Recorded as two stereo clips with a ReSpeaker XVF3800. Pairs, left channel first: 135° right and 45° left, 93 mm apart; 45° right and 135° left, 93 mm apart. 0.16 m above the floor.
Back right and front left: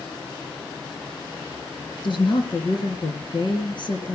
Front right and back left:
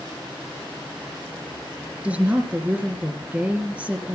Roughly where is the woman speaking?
Behind right.